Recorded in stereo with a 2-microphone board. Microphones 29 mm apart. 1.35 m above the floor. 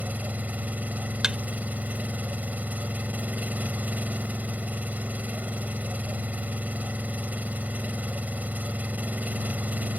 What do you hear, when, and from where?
0.0 s an engine running: 80° right
1.2 s a thud: 30° right (ahead or behind)